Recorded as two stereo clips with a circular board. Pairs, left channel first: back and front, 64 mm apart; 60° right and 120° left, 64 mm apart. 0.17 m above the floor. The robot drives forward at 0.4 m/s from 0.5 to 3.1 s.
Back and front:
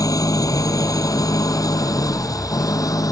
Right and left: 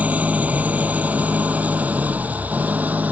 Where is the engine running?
175° right.